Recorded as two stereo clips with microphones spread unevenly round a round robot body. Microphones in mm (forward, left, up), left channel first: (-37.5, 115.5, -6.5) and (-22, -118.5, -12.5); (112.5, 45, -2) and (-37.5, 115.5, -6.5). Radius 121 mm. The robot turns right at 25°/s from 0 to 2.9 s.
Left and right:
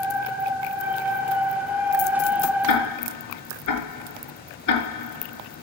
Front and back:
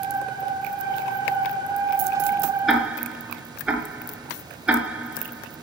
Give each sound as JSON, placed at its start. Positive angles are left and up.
{"t": 2.7, "sound": "ticking", "azimuth_deg": 65, "distance_m": 5.5}